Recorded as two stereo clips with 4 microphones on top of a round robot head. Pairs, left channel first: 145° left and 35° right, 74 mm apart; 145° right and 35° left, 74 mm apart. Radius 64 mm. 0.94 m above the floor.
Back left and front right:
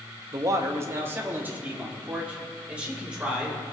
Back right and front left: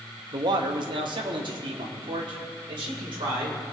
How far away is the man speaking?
About 1.0 m.